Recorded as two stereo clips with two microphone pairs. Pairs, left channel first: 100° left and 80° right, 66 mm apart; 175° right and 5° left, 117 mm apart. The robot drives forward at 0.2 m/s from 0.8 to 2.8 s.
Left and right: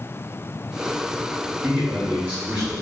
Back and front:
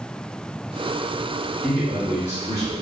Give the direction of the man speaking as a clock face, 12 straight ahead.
4 o'clock.